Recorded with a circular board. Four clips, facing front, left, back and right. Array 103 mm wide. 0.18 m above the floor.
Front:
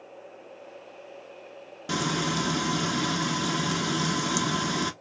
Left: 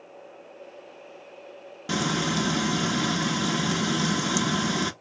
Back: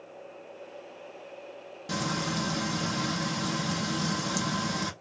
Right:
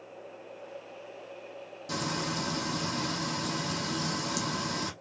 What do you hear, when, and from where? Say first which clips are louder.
1.9 s frying: left 7 dB, front 3 dB; 65° left, 0.5 m